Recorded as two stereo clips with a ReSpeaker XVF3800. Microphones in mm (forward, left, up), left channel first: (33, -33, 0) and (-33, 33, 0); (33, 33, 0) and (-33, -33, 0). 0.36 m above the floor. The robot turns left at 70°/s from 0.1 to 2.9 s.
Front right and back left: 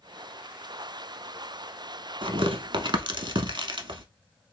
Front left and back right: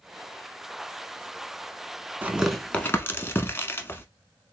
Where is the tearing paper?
155° left, 0.7 m; by 4.0 s 110° left, 0.7 m.